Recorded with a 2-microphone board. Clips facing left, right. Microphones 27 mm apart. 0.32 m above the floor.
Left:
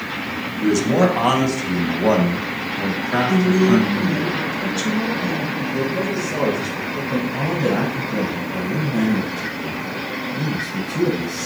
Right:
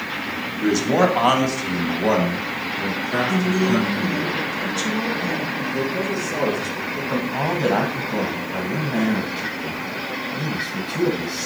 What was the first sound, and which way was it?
A man speaking, 30° right (ahead or behind).